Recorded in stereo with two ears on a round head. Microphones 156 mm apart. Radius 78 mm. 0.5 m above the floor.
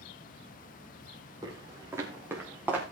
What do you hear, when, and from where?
1.4 s footsteps: 20° right (ahead or behind), 5 m; by 2.8 s 10° right (ahead or behind), 5 m